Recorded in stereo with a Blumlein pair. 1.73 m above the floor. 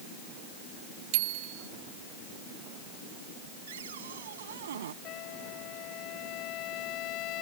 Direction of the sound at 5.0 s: 40° left.